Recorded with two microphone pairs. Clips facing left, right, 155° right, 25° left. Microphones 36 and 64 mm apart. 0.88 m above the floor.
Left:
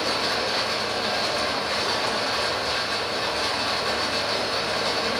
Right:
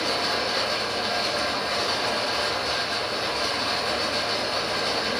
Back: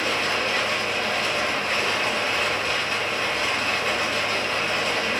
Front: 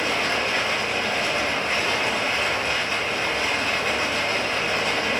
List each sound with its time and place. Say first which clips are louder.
0.0 s running water: left 1 dB, front 1 dB; 100° left, 1.3 m